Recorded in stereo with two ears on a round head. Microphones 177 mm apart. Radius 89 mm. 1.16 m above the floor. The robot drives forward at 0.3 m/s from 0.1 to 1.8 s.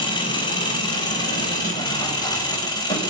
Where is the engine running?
25° left (ahead or behind), 5 m; by 3.1 s 20° left (ahead or behind), 5.5 m.